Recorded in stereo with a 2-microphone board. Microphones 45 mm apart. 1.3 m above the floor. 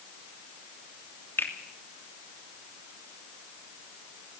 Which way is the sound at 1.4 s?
60° left (ahead or behind).